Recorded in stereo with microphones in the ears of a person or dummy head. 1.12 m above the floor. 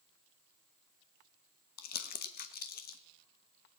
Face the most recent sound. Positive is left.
turn(degrees=45)  # may be behind; listen again after turning